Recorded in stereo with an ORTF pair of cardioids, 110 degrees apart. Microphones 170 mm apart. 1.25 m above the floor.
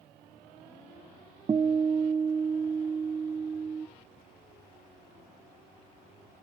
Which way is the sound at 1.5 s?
25° right.